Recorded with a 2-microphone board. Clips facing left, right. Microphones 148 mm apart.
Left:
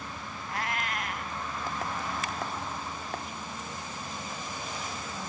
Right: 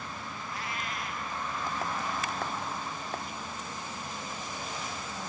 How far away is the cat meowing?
About 1.1 m.